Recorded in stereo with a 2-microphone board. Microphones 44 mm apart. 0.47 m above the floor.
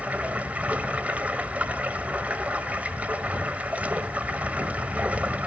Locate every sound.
0.0 s running water: 35° right (ahead or behind), 1.5 m